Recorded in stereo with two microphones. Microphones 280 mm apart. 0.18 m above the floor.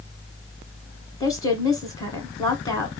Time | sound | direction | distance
1.2 | a woman speaking | 15° left (ahead or behind) | 1.9 m